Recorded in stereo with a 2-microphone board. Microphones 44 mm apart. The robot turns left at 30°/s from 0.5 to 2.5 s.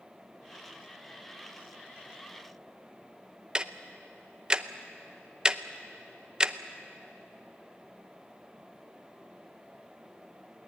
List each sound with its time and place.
3.5 s ticking: 20° right (ahead or behind), 0.6 m